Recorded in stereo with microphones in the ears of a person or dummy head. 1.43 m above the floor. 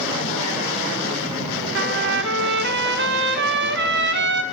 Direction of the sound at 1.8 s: 55° right (ahead or behind).